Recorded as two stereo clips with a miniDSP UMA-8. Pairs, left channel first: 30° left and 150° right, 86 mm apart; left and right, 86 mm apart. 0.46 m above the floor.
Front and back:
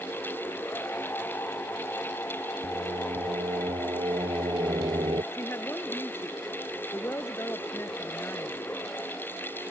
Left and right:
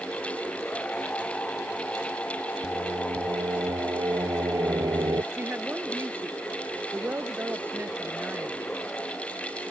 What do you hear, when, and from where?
2.6 s singing: 135° right
5.3 s a woman speaking: 25° right